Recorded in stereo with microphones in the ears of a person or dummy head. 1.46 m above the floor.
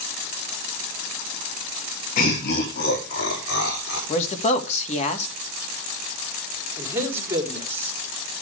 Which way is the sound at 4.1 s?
40° left (ahead or behind).